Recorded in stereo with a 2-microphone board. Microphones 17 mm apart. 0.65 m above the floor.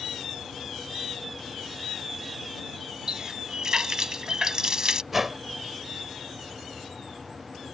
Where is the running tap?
40° right (ahead or behind).